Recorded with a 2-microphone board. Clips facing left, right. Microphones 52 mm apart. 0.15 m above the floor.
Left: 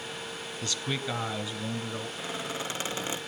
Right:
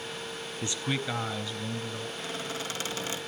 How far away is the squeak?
About 2.0 m.